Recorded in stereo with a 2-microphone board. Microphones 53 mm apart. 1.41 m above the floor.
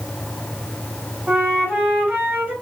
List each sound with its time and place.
1.3 s a flute: 35° right (ahead or behind), 1.3 m